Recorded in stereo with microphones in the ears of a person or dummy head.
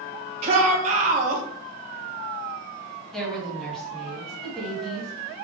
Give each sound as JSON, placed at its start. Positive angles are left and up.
{"t": 0.4, "sound": "a shout", "side_deg": -45, "distance_m": 1.6}
{"t": 3.1, "sound": "a woman speaking", "side_deg": 0, "distance_m": 1.8}